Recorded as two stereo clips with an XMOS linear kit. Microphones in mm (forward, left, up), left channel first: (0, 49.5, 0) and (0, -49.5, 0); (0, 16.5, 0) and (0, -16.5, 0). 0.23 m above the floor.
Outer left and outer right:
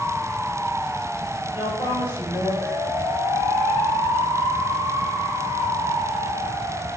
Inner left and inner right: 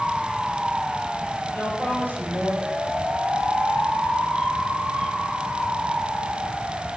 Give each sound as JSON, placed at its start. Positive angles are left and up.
{"t": 1.5, "sound": "a woman speaking", "side_deg": 65, "distance_m": 5.5}